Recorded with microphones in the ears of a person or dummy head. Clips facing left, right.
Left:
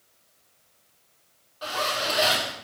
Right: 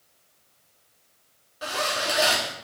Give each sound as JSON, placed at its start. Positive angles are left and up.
{"t": 1.6, "sound": "a zipper", "side_deg": -25, "distance_m": 2.5}